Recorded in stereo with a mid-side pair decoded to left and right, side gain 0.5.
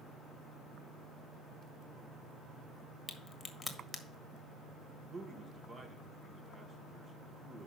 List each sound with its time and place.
3.1 s a crack: 20° left, 1.3 m
5.0 s a man speaking: 35° right, 1.3 m